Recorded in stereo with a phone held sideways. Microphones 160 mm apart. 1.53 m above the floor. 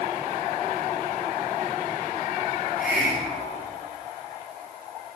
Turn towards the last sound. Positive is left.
turn(degrees=65)  # may be behind; listen again after turning